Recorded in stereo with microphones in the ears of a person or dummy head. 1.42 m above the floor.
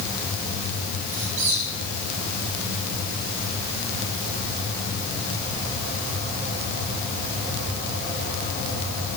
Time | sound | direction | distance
1.1 | a squeak | 75° right (ahead or behind) | 9.5 m